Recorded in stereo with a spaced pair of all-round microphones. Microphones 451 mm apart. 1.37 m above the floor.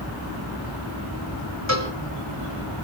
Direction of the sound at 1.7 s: 35° left (ahead or behind).